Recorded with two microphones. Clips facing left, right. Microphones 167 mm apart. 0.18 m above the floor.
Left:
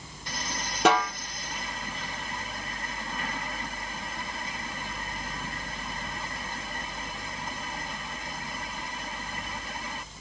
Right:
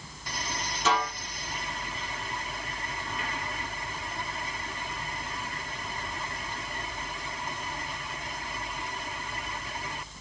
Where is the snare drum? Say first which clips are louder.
Left 5 dB; 80° left, 1.5 m.